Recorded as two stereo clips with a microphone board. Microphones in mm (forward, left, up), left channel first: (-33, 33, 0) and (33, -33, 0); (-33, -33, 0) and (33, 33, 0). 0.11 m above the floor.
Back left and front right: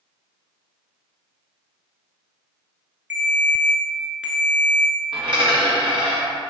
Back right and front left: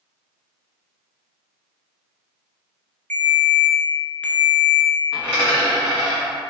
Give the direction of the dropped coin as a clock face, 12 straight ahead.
2 o'clock.